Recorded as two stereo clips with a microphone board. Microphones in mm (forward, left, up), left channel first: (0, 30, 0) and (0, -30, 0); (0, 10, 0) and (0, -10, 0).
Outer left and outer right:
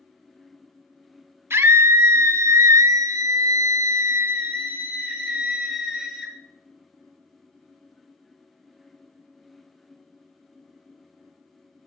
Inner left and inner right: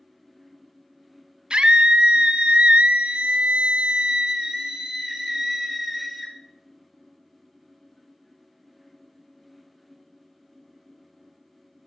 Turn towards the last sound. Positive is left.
turn(degrees=-5)  # may be behind; listen again after turning